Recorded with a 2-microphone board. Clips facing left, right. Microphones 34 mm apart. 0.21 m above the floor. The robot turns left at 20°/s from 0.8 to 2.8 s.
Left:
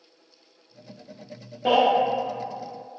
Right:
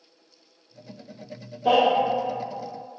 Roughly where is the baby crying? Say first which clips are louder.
Right 1 dB; left.